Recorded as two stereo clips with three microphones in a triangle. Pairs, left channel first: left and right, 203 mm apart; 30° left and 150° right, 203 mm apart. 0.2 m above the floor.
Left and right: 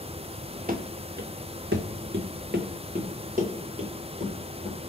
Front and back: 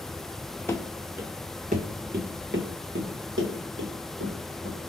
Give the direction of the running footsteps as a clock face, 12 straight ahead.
2 o'clock.